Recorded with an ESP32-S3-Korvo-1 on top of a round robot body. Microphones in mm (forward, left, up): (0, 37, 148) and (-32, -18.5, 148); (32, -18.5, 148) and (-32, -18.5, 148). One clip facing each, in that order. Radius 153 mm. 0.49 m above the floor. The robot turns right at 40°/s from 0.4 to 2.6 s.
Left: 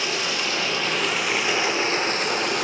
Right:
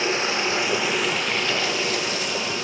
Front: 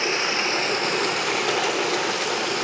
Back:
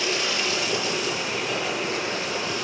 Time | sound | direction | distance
0.0 | running water | 60° right | 1.2 m